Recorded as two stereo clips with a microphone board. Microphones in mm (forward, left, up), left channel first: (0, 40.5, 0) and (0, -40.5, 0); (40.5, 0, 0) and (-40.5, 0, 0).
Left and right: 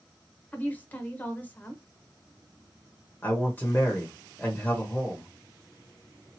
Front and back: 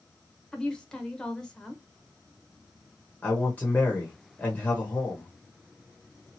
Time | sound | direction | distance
0.5 | a woman speaking | 65° left | 0.9 m
3.2 | a man speaking | 45° left | 0.9 m